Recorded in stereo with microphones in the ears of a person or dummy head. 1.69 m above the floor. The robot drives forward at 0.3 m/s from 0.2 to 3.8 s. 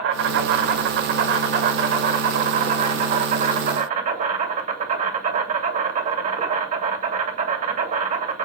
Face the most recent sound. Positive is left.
turn(degrees=-45)  # may be behind; listen again after turning